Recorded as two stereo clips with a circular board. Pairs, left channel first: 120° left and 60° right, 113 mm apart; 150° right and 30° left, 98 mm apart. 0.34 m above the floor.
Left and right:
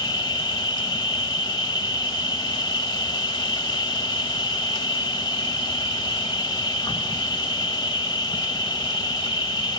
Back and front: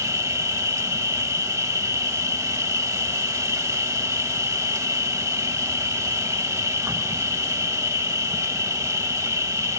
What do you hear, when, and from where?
0.0 s an insect: 80° left, 0.8 m